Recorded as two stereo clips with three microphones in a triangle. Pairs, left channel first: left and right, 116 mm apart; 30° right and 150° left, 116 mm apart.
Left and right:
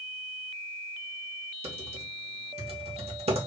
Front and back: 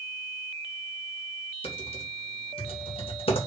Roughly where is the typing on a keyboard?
Ahead right.